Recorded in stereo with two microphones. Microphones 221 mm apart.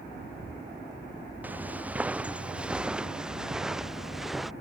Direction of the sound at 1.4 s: 5° right (ahead or behind).